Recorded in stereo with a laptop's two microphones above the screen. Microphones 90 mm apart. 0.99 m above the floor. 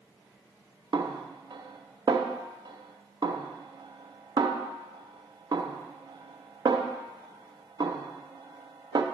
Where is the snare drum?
55° right (ahead or behind), 0.6 m.